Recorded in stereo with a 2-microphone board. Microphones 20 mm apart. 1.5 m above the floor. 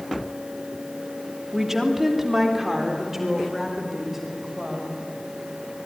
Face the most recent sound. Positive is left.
turn(degrees=-15)  # may be behind; listen again after turning